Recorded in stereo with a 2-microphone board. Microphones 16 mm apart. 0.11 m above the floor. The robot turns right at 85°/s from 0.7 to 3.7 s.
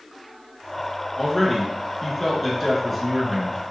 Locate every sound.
1.2 s a man speaking: 15° left (ahead or behind), 1.1 m; by 3.6 s 20° right (ahead or behind), 1.1 m